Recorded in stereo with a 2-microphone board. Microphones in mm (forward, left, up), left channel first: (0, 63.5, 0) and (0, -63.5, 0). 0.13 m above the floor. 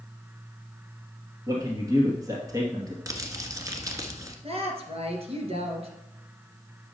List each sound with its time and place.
1.5 s a man speaking: 30° right (ahead or behind), 2 m
3.1 s crumpling: 25° right (ahead or behind), 1.4 m
4.4 s a woman speaking: 50° right (ahead or behind), 2 m